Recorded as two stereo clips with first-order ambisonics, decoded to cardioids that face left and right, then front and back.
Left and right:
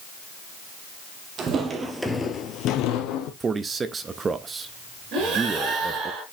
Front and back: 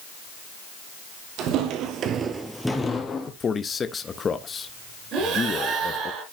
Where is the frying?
I don't hear frying.